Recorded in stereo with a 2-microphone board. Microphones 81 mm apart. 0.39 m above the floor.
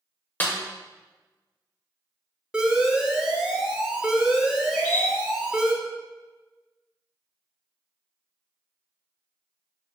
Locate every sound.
0.4 s a snare drum: 20° left (ahead or behind), 0.6 m
2.5 s an alarm: 10° right (ahead or behind), 0.5 m
4.7 s a bird: 10° left (ahead or behind), 1.2 m